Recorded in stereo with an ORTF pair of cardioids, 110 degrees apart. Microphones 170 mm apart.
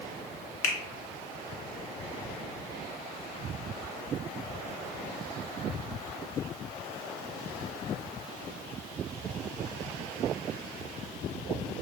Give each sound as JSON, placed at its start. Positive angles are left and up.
{"t": 0.6, "sound": "a finger snap", "azimuth_deg": 50, "distance_m": 0.9}